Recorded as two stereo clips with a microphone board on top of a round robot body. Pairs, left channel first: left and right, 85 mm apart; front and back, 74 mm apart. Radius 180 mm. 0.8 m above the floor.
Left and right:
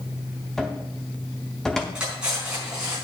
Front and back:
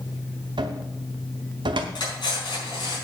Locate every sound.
0.6 s a cupboard door: 175° left, 0.6 m
1.9 s cutlery clinking: 10° right, 5 m